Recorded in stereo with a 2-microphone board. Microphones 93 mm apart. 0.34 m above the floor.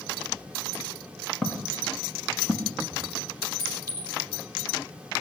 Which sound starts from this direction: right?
A clink, at 3.6 s.